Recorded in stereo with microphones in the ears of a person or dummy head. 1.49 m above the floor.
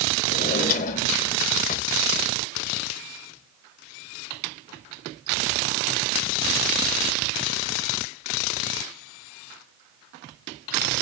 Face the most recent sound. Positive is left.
turn(degrees=40)  # may be behind; listen again after turning